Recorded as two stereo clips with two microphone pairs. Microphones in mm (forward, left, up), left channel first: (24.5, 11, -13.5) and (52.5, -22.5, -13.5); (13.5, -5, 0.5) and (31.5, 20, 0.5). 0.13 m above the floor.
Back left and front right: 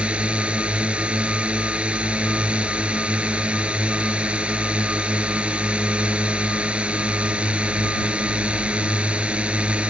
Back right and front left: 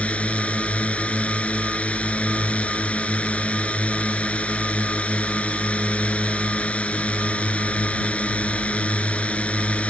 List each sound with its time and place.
0.0 s a drone: 100° right